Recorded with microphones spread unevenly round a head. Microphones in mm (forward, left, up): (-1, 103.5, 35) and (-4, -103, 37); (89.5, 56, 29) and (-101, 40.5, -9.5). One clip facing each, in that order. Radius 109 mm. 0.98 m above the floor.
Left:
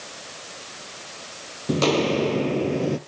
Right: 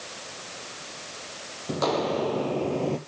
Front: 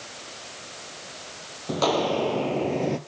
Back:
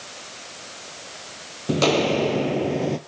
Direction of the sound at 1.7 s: 125° left.